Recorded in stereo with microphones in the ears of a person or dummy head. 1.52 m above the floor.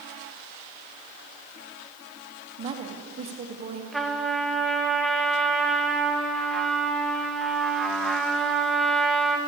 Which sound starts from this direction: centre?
A trumpet, at 3.9 s.